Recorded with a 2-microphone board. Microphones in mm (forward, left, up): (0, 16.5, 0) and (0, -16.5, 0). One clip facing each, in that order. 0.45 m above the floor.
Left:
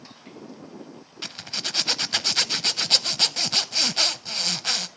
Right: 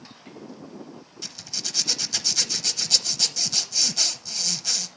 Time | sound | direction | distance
1.2 | a zipper | 40° left (ahead or behind) | 0.7 m